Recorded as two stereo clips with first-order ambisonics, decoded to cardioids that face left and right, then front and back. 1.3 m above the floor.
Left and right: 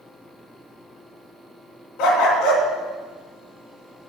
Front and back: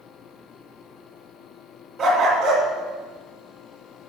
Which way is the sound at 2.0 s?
105° left.